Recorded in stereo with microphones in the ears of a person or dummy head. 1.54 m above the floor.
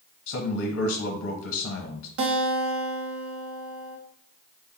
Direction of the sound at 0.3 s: 70° left (ahead or behind).